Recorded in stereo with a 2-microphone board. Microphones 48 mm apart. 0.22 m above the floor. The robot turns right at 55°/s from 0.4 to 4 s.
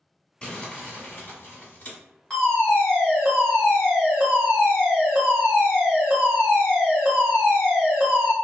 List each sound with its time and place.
0.4 s crumpling: 35° left, 1.4 m; by 2.0 s 120° left, 1.4 m
2.3 s a fire alarm: 15° left (ahead or behind), 1.9 m; by 8.3 s 10° right (ahead or behind), 1.9 m